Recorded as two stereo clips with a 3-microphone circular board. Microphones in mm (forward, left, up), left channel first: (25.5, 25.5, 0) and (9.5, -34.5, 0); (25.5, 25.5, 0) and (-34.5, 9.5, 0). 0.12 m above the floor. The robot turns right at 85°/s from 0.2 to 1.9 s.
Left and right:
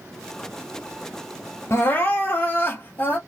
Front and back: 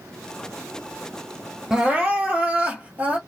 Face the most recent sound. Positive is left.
turn(degrees=135)